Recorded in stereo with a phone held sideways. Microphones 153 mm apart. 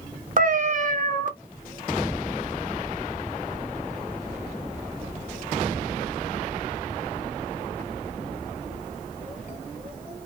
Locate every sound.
0.4 s a cat meowing: 60° right (ahead or behind), 0.8 m